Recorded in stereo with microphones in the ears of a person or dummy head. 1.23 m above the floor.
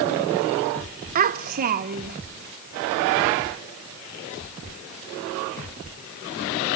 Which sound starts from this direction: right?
A child speaking, at 1.1 s.